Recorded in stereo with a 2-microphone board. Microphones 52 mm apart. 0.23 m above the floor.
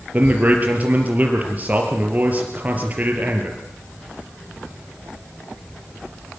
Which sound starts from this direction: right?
A man speaking, at 0.1 s.